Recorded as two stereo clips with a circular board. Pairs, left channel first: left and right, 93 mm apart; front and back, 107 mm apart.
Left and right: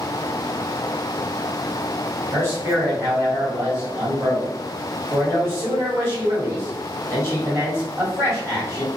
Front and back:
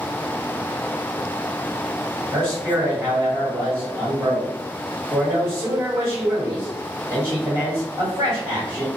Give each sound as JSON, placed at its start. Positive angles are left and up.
{"t": 2.3, "sound": "a man speaking", "azimuth_deg": -125, "distance_m": 1.6}